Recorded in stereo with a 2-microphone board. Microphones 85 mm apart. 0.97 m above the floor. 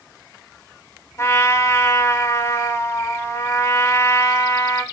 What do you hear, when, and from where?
1.2 s a trumpet: 35° left (ahead or behind), 3 m